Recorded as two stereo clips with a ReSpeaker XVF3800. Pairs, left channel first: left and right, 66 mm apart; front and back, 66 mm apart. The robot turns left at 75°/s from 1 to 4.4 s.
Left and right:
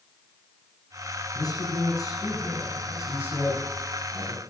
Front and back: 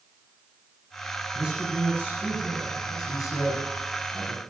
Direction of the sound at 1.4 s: 120° left.